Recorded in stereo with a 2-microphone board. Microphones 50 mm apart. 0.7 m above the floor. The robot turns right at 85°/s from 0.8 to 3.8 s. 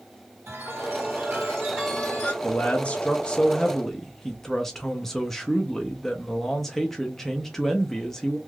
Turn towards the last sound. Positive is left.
turn(degrees=5)  # may be behind; listen again after turning